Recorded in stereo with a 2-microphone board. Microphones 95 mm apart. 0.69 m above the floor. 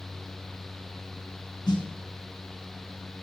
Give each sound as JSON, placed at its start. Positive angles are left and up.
{"t": 1.7, "sound": "a snare drum", "side_deg": 55, "distance_m": 3.5}